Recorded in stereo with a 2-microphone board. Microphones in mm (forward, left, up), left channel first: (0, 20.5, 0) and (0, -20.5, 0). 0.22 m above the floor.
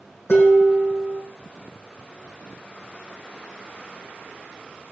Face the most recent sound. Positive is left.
turn(degrees=75)  # may be behind; listen again after turning